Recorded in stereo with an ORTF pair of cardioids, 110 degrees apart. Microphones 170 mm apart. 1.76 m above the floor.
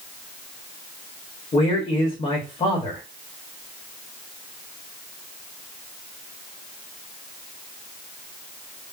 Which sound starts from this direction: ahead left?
A man speaking, at 1.5 s.